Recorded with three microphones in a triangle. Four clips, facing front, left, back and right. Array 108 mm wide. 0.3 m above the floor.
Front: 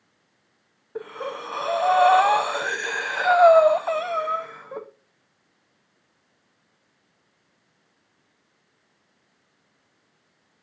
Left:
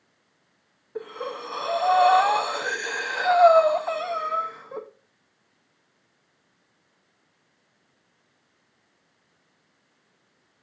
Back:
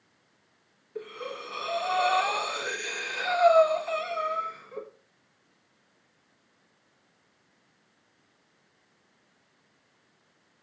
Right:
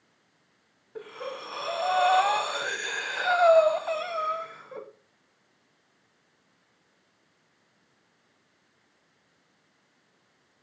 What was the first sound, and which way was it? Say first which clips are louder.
Breathing: left 4 dB, front 6 dB; 25° left.